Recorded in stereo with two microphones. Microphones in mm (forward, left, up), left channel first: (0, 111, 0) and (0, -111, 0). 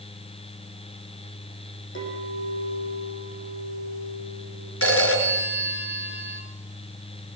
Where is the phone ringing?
75° left (ahead or behind), 3.5 m.